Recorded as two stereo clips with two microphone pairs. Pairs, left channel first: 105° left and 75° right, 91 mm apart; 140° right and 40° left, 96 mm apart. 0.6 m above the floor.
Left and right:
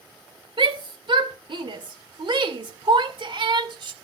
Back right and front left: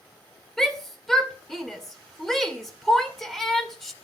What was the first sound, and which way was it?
A shout, 50° right.